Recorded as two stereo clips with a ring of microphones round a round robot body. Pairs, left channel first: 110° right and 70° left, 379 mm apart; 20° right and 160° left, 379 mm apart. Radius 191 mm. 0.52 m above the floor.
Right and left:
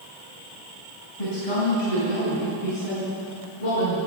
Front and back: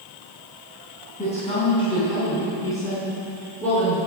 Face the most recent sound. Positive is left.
turn(degrees=-110)